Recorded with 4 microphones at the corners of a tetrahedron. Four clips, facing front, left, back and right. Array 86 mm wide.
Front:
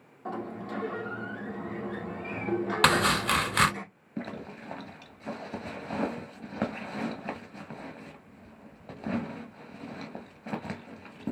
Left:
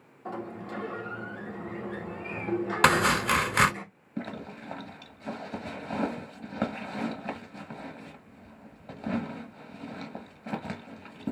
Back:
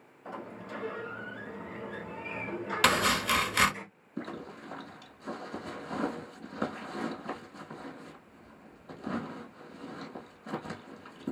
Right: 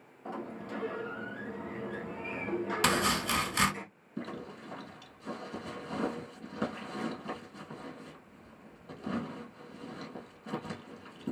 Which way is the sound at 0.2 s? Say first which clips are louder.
Left 3 dB, front 6 dB; straight ahead.